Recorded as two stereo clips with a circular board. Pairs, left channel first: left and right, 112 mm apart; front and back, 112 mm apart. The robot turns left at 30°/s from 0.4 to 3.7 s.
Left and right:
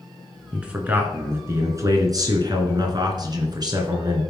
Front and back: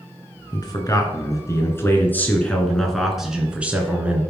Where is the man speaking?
15° right, 2 m; by 4.2 s 110° right, 2 m.